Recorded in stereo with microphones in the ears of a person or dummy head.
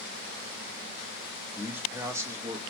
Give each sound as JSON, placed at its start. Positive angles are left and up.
{"t": 1.6, "sound": "a man speaking", "side_deg": -10, "distance_m": 1.4}